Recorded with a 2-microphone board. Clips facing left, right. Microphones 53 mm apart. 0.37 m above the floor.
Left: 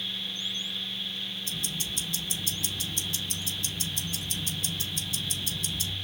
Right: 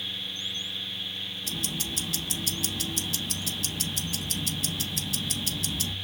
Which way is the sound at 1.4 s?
85° right.